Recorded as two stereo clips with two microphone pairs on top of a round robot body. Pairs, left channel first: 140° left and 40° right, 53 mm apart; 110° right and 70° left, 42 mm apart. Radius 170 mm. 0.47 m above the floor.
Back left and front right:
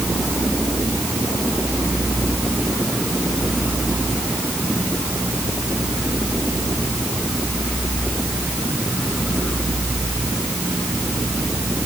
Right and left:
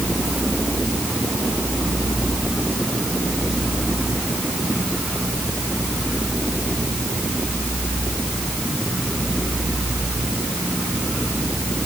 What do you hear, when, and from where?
Only background noise.